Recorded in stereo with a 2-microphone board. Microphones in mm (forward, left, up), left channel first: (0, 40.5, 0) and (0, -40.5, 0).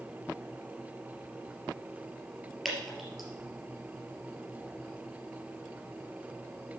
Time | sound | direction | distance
2.6 | dripping | centre (ahead or behind) | 3 m